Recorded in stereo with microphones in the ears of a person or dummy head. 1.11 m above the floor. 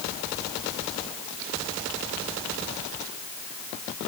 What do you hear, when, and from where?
Only background noise.